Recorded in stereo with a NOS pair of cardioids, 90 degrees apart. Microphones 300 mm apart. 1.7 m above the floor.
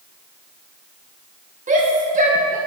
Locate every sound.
1.7 s a shout: 25° right, 2.5 m